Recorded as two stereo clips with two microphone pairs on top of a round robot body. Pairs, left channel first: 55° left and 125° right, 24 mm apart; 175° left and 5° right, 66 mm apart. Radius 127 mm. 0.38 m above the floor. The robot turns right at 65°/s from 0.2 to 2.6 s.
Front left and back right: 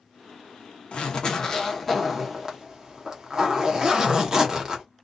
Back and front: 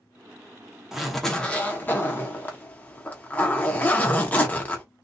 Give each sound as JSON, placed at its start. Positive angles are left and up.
{"t": 0.9, "sound": "a zipper", "azimuth_deg": 95, "distance_m": 1.0}